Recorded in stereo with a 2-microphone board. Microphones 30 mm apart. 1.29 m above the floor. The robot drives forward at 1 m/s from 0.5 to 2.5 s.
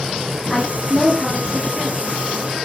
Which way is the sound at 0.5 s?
15° right (ahead or behind).